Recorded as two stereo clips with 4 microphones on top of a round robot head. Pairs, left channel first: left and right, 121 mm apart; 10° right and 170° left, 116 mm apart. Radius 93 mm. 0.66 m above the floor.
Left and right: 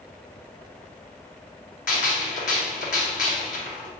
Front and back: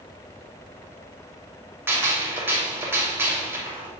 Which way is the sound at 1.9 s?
100° left.